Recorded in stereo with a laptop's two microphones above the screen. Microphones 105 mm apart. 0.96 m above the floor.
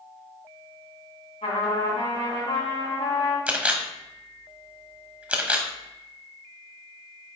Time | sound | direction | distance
1.4 | a trumpet | 85° left | 3.5 m
3.5 | a camera shutter | 10° right (ahead or behind) | 0.9 m